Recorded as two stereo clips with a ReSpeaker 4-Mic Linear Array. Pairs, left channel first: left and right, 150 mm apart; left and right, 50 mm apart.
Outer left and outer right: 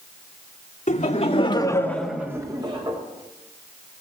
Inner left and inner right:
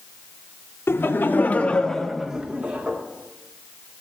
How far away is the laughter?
About 2 m.